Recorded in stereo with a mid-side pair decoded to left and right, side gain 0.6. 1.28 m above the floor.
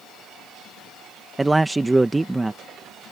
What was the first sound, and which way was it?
A man speaking, 15° right.